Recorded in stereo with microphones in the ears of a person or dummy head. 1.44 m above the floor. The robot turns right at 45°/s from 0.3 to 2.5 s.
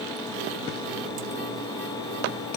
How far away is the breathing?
I don't hear breathing.